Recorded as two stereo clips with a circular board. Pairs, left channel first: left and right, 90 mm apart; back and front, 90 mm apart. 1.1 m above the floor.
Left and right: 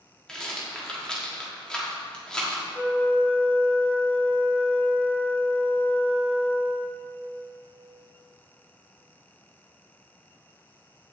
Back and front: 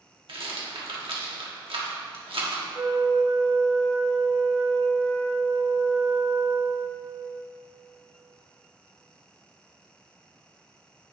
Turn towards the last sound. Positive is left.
turn(degrees=5)